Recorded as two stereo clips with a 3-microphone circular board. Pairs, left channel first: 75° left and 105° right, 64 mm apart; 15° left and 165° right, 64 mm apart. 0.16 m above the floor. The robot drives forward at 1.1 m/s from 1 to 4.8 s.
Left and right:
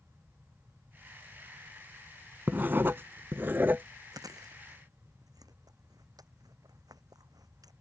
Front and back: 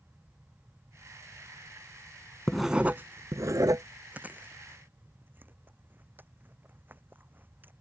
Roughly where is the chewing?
Right.